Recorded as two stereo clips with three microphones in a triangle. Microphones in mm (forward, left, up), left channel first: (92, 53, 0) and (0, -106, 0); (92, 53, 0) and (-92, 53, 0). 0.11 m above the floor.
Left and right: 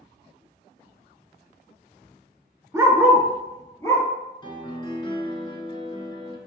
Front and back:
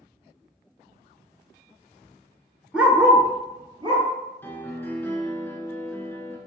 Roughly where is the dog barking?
Right.